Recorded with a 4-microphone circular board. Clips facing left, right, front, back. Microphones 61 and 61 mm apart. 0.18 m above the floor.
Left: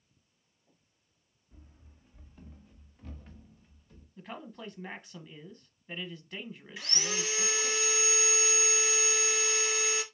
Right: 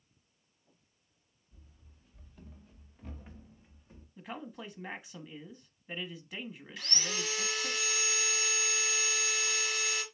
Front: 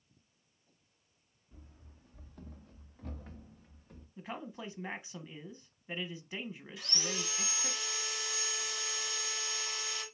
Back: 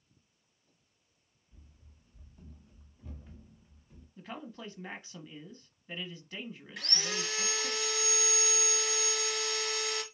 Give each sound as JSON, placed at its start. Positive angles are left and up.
{"t": 1.5, "sound": "running footsteps", "azimuth_deg": 30, "distance_m": 0.9}
{"t": 4.2, "sound": "a man speaking", "azimuth_deg": -15, "distance_m": 1.0}
{"t": 6.8, "sound": "sawing", "azimuth_deg": 160, "distance_m": 2.0}